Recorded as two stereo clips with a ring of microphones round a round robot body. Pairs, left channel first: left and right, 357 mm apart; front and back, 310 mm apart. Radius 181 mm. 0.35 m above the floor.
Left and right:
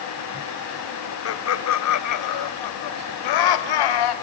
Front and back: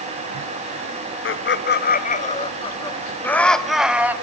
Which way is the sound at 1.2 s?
45° left.